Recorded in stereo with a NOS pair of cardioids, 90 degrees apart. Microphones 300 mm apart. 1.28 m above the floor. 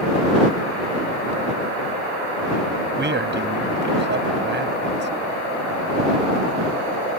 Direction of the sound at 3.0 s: 35° right.